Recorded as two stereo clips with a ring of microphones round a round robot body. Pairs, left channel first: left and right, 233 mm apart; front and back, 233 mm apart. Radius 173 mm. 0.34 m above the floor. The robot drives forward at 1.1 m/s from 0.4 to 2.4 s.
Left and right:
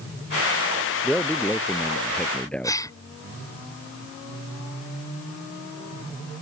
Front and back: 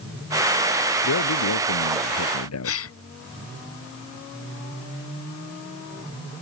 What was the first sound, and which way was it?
A man speaking, 5° left.